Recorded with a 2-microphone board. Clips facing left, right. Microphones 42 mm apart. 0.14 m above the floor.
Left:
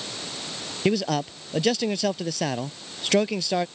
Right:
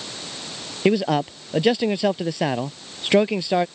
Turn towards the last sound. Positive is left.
turn(degrees=-20)  # may be behind; listen again after turning